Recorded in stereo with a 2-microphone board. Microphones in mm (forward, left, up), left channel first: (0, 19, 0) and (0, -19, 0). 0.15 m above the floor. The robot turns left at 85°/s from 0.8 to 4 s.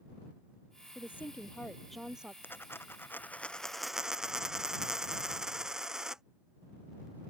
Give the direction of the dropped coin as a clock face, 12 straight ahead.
8 o'clock.